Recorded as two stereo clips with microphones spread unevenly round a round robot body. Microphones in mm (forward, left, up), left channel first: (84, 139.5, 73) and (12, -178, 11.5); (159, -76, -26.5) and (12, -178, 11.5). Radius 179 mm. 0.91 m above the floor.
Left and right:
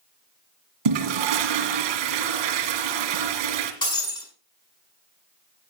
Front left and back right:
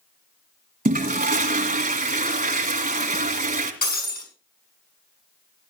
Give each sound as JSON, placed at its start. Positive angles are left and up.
{"t": 0.8, "sound": "a toilet flushing", "azimuth_deg": -115, "distance_m": 2.0}
{"t": 3.8, "sound": "breaking glass", "azimuth_deg": 0, "distance_m": 6.0}